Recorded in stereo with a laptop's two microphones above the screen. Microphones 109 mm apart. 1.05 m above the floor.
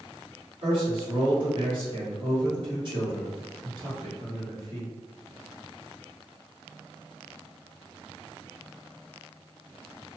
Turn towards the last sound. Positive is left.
turn(degrees=-45)  # may be behind; listen again after turning